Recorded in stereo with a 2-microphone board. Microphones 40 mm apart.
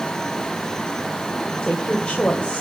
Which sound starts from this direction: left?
A woman speaking, at 1.6 s.